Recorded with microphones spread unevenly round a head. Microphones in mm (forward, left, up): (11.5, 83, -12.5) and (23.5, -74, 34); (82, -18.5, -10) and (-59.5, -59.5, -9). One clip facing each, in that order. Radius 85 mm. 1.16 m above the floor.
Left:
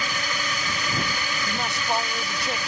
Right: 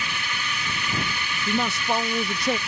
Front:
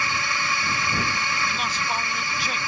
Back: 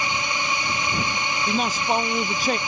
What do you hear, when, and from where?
0.0 s a drone: 125° left
1.5 s a woman speaking: 115° right